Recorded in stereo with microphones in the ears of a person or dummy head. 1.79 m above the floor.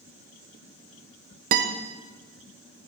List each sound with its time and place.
1.5 s a guitar: 50° right (ahead or behind), 0.7 m